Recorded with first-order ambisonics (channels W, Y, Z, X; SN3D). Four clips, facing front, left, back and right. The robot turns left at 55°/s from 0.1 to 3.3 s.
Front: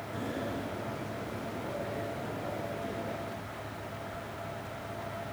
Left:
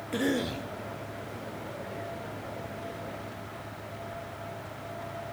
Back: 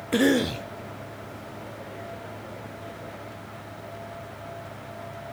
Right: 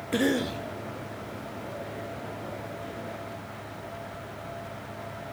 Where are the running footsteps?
I don't hear running footsteps.